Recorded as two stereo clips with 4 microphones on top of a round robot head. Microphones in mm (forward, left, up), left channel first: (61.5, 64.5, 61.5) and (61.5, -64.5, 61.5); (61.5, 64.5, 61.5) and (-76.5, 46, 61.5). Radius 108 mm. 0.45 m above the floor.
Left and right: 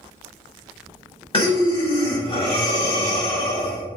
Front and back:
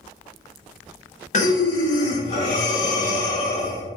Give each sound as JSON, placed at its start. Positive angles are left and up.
{"t": 1.3, "sound": "breathing", "azimuth_deg": 40, "distance_m": 1.8}